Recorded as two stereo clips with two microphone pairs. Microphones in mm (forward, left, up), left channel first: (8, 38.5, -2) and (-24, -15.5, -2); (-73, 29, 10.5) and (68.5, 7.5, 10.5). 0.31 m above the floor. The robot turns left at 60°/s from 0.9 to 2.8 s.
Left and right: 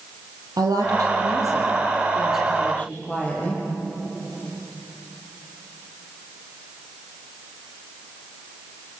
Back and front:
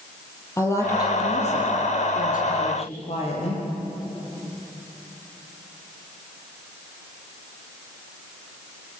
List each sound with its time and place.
0.6 s a woman speaking: 120° right, 7 m; by 3.6 s 125° left, 7 m